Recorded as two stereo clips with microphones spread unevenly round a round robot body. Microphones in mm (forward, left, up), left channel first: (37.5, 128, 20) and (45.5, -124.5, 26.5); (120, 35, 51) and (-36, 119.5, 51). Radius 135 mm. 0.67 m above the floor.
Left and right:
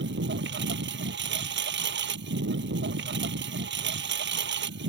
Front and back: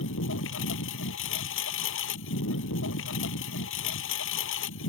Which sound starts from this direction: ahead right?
A lawn mower, at 0.0 s.